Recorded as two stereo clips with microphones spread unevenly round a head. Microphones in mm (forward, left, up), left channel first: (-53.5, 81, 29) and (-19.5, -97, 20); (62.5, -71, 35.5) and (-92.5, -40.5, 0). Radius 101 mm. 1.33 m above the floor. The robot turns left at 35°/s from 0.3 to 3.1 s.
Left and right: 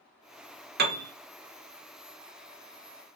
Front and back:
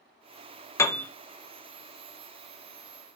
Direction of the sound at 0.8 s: 65° right.